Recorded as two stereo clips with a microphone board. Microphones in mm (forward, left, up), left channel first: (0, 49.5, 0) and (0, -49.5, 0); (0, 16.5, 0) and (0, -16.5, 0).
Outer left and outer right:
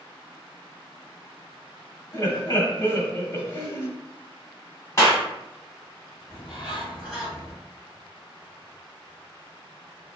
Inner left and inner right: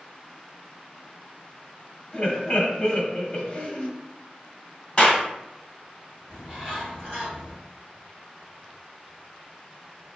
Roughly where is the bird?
Centre.